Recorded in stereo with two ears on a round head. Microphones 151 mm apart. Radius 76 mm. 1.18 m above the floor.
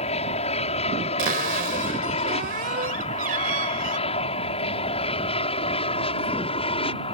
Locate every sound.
0.0 s an aircraft: 40° left (ahead or behind); by 7.2 s 35° left (ahead or behind)
1.2 s a cupboard door: 50° right (ahead or behind)